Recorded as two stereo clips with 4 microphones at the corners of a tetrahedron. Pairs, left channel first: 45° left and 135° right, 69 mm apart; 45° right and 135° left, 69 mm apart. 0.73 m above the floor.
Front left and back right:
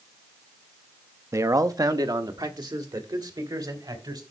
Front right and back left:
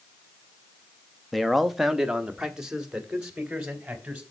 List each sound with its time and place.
1.3 s a man speaking: 135° right, 0.5 m; by 4.2 s 150° right, 2.5 m